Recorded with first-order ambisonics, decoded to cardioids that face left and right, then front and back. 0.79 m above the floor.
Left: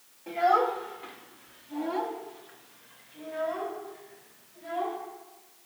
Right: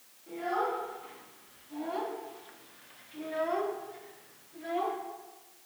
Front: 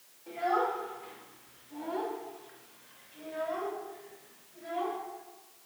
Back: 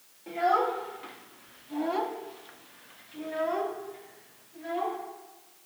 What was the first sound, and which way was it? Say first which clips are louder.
A child speaking: left 8 dB, back 4 dB; 125° left.